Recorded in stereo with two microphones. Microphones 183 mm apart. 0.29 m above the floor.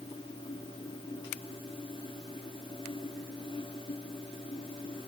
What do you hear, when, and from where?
Only background noise.